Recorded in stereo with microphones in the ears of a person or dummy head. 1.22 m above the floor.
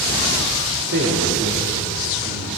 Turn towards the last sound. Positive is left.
turn(degrees=-35)  # may be behind; listen again after turning